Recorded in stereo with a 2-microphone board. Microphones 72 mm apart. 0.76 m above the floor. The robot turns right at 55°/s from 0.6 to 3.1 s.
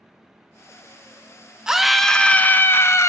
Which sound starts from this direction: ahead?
A scream, at 1.7 s.